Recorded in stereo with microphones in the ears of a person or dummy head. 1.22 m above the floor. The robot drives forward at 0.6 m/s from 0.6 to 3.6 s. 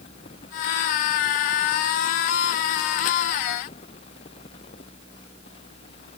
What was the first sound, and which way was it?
Only background noise.